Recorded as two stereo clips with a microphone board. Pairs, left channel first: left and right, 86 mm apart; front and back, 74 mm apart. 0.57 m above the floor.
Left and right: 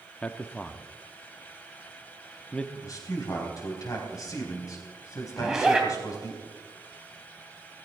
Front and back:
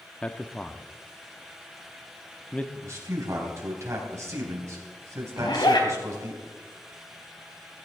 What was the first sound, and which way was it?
A man speaking, 40° left.